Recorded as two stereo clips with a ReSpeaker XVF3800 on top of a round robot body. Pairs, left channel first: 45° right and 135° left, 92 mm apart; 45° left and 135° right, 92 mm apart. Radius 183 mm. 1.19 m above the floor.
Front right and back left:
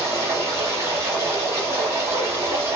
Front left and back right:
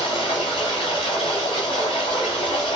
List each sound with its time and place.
0.0 s running water: 75° left, 1.0 m